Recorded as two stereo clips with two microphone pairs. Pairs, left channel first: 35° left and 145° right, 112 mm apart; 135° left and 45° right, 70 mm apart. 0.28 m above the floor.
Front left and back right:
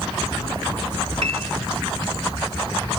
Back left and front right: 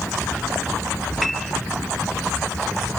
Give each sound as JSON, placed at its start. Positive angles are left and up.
{"t": 1.2, "sound": "a piano", "azimuth_deg": -140}